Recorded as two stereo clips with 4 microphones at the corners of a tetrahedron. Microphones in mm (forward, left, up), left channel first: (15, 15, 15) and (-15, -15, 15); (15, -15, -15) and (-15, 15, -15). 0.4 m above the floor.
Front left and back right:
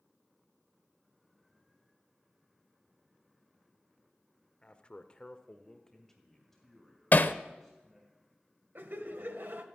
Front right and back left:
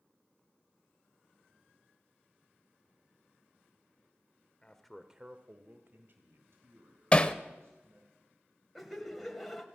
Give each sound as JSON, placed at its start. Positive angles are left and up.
{"t": 4.6, "sound": "a man speaking", "azimuth_deg": 5, "distance_m": 1.1}
{"t": 7.1, "sound": "hammering", "azimuth_deg": 15, "distance_m": 0.7}
{"t": 8.8, "sound": "laughter", "azimuth_deg": -135, "distance_m": 2.0}